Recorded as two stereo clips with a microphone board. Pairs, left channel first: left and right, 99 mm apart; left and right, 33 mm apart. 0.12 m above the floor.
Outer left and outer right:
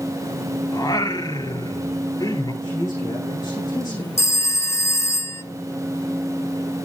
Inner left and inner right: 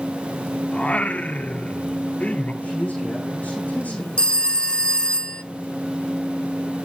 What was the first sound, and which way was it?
Singing, 40° left (ahead or behind).